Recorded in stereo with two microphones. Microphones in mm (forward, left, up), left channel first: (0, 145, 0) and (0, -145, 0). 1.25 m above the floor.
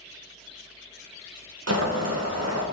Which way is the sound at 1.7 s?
60° right (ahead or behind).